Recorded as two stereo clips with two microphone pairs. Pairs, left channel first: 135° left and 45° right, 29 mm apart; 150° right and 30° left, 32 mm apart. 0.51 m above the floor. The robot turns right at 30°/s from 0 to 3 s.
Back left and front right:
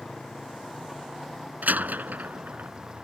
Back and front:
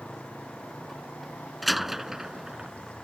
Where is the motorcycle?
175° left; by 3.0 s 105° right.